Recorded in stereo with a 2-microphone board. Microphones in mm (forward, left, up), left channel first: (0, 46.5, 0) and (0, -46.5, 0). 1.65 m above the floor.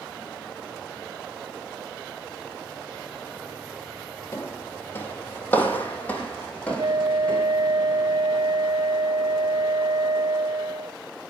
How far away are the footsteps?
About 3 m.